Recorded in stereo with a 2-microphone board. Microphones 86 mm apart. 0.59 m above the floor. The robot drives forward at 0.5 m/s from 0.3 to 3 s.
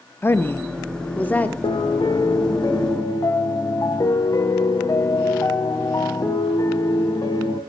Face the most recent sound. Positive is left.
turn(degrees=45)  # may be behind; listen again after turning